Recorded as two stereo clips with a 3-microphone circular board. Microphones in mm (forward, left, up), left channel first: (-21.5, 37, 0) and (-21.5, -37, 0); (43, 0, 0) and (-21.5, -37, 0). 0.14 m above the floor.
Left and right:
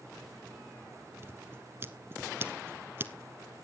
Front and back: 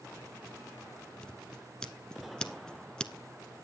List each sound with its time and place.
1.2 s scissors: 45° right, 0.7 m